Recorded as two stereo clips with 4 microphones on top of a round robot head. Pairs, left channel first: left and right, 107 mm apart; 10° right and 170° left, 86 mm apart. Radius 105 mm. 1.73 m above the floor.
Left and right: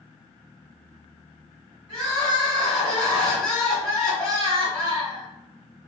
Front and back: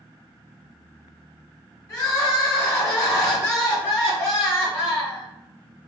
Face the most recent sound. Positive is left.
turn(degrees=35)